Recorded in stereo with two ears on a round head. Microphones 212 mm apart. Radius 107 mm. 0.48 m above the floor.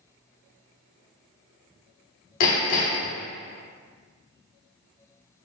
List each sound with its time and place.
2.4 s hammering: 85° left, 1.4 m